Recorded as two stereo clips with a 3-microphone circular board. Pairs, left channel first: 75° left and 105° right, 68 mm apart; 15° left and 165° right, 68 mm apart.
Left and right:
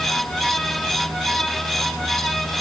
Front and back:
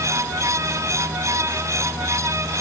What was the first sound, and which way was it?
Only background noise.